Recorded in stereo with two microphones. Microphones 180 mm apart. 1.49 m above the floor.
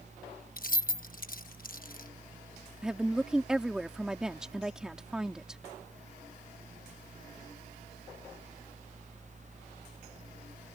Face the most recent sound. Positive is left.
turn(degrees=-5)  # may be behind; listen again after turning